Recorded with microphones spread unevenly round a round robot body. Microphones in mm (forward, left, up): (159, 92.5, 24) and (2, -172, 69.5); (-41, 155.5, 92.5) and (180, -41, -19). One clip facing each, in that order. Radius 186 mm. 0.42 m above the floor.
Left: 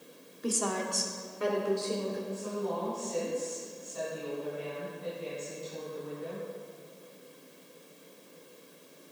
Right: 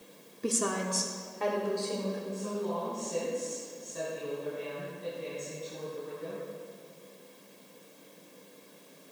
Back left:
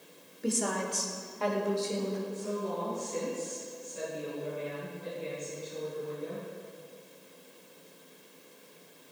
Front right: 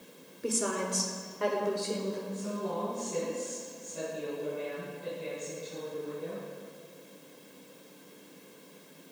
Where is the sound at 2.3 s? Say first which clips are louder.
Even, back left 1 dB; 65° right, 4 m.